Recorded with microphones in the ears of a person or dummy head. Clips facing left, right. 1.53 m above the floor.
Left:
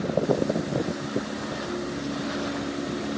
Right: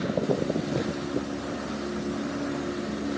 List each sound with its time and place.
Only background noise.